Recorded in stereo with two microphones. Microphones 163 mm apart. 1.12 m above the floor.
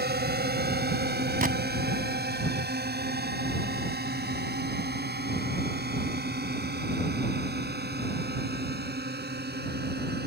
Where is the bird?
I don't hear a bird.